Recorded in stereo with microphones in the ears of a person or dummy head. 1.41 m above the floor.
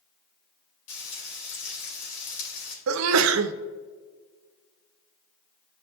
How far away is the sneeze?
About 0.6 m.